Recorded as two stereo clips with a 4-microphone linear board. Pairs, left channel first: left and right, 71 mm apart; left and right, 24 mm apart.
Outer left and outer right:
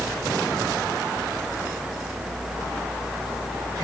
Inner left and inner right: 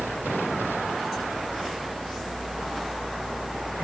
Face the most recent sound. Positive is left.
No sound to turn to.